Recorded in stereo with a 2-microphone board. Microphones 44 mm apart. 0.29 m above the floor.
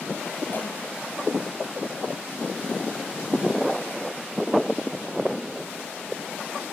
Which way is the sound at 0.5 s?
50° left (ahead or behind).